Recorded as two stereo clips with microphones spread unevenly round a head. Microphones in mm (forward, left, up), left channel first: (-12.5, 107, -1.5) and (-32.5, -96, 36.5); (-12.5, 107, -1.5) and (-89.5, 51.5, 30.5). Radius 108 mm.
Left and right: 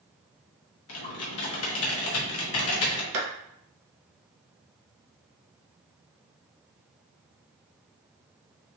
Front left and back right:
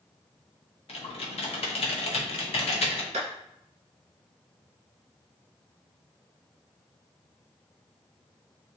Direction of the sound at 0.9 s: 60° left.